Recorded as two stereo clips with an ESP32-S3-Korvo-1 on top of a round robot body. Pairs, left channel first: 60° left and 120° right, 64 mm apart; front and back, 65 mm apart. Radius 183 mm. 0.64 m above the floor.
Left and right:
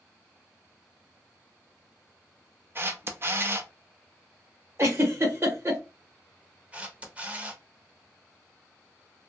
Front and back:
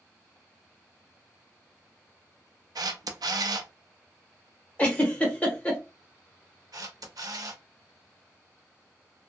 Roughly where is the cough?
I don't hear a cough.